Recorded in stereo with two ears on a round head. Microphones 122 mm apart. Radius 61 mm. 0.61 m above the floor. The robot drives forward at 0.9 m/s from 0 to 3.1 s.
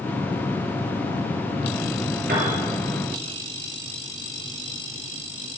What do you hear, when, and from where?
2.3 s a piano: 80° right, 3 m